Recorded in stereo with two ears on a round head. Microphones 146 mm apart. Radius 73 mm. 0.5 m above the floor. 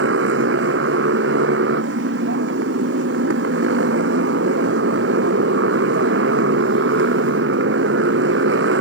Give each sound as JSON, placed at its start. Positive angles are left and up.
{"t": 0.0, "sound": "a motorcycle", "side_deg": -85}